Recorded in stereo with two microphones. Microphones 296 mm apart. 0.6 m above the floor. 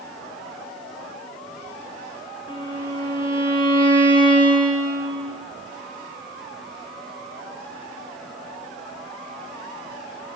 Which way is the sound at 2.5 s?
15° left (ahead or behind).